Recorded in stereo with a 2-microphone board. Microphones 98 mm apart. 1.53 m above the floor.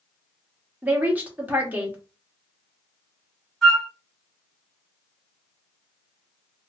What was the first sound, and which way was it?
A woman speaking, 20° right (ahead or behind).